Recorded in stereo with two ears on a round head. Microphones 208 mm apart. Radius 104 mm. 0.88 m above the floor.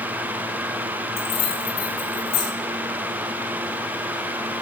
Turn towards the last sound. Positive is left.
turn(degrees=80)